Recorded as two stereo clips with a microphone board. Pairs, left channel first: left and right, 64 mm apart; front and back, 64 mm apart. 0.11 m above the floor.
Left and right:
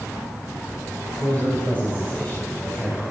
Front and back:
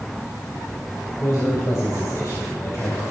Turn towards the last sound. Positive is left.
turn(degrees=35)